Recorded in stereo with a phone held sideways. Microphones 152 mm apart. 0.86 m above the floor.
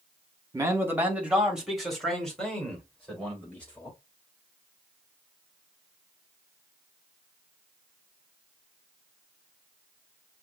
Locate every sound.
0.5 s a man speaking: 20° right (ahead or behind), 1.5 m; by 4.0 s 10° left (ahead or behind), 4 m